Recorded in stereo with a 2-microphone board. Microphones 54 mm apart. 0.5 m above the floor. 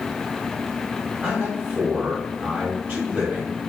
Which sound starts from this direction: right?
A man speaking, at 1.2 s.